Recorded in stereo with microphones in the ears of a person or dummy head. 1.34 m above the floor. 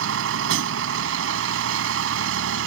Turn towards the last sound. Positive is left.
turn(degrees=-75)  # may be behind; listen again after turning